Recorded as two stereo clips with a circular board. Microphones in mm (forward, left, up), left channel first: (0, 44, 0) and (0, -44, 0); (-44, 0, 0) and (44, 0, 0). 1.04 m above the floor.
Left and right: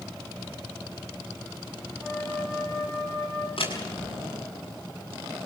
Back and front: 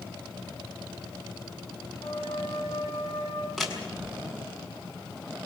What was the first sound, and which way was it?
A flute, straight behind.